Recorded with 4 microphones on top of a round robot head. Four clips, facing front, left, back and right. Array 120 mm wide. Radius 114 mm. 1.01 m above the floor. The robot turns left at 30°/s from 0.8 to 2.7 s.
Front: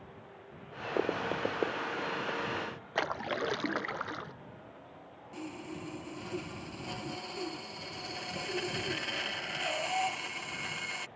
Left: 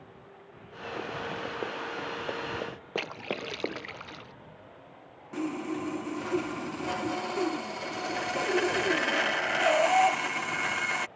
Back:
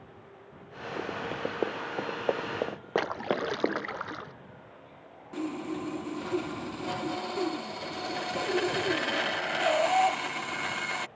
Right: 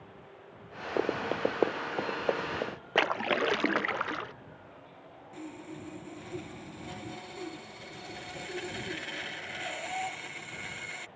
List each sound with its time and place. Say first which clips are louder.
1.0 s running footsteps: right 7 dB, front 2 dB; 55° right; by 4.0 s 165° left
3.0 s a splash: right 8 dB, back 4 dB; 90° right
5.3 s sawing: left 11 dB, back 9 dB; 125° left